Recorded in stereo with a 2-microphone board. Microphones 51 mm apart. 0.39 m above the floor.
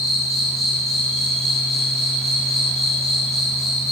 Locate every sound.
0.0 s an insect: 5° left (ahead or behind), 10 m